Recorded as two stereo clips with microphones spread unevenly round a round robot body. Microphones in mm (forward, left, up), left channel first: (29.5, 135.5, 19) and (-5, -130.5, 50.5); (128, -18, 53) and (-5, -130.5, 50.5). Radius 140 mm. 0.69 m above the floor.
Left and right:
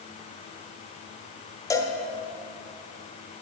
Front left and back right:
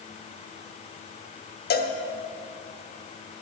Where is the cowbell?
5° left, 1.0 m.